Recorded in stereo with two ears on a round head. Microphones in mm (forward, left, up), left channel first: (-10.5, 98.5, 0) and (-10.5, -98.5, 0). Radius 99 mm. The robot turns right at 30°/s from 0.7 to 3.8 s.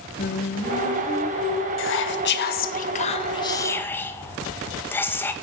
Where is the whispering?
110° left, 1.6 m; by 5.3 s 170° left, 1.6 m.